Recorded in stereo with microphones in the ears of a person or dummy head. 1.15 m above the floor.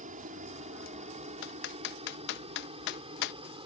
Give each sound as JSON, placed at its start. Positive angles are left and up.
{"t": 0.0, "sound": "a helicopter", "side_deg": -35}
{"t": 1.4, "sound": "typing on a keyboard", "side_deg": 60}